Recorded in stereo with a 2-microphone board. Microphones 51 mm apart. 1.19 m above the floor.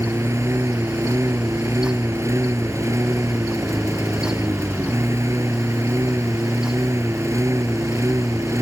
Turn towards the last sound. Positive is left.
turn(degrees=-70)  # may be behind; listen again after turning